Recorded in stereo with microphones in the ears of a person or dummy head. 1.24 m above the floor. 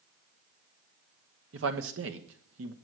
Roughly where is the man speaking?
Right.